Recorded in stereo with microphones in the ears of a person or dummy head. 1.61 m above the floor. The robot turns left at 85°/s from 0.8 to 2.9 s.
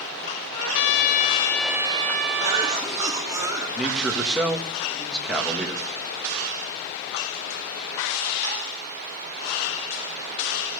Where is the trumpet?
70° left, 0.6 m; by 2.9 s 105° right, 0.6 m.